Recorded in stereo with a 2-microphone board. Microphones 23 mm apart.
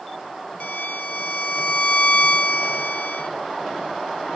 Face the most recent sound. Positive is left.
turn(degrees=70)  # may be behind; listen again after turning